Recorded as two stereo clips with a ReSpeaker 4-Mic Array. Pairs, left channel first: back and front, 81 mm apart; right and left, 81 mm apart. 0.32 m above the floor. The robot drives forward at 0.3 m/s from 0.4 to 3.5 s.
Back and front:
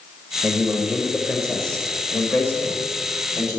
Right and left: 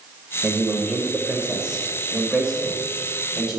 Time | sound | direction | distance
0.4 | a man speaking | 35° left | 0.8 m